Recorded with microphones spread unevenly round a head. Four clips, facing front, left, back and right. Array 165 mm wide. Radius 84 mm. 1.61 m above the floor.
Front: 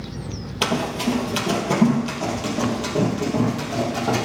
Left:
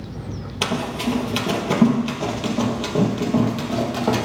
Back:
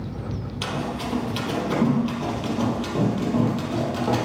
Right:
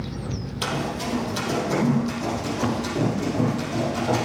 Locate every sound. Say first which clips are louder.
0.6 s running footsteps: left 4 dB, front 7 dB; 50° left, 2.5 m; by 4.2 s 100° left, 3 m